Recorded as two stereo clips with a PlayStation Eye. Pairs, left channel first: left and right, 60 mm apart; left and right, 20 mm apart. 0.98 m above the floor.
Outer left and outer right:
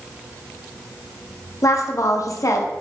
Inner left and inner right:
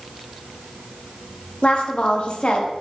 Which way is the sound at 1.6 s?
60° left (ahead or behind).